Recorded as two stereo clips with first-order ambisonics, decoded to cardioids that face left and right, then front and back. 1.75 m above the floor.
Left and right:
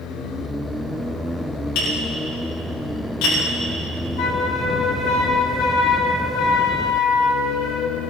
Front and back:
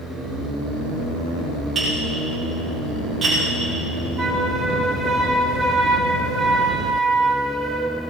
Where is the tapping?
105° left, 7.5 m.